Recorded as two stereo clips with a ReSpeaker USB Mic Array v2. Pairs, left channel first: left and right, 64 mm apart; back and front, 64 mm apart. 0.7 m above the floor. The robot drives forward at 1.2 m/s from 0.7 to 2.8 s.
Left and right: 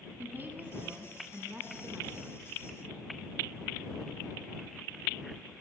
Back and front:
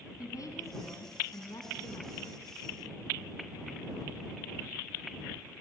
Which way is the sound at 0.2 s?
150° right.